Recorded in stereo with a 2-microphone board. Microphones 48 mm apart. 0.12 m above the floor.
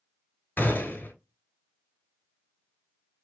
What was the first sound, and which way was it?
A gunshot, 45° left (ahead or behind).